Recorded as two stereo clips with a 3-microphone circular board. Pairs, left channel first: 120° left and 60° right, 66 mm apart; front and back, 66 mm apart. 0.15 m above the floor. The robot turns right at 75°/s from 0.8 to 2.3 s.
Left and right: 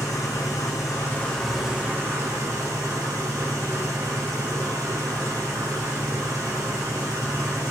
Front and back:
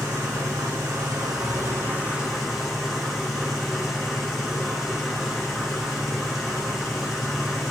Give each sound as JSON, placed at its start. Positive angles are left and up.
{"t": 0.0, "sound": "an engine running", "azimuth_deg": 155, "distance_m": 5.0}